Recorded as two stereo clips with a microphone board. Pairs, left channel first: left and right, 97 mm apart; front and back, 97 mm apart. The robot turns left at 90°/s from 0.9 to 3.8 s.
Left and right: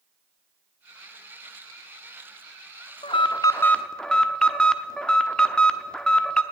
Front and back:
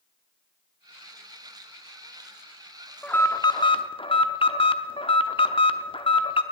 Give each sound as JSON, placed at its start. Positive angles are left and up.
{"t": 3.0, "sound": "an alarm", "azimuth_deg": 80, "distance_m": 0.7}